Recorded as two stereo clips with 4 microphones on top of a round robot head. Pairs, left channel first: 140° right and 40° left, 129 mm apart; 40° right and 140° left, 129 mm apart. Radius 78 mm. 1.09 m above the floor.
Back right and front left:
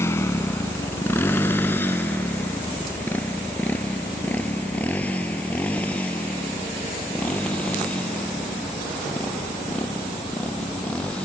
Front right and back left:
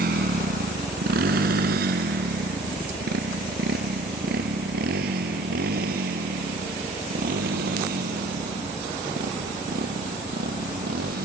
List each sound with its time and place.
0.0 s a motorcycle: 150° left; by 11.2 s 140° left